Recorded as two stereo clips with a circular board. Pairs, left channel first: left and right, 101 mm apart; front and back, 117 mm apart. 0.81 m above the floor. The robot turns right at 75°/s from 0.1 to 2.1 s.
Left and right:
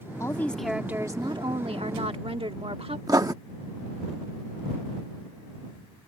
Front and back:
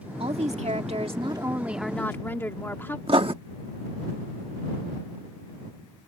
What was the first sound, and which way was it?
A woman speaking, 145° left.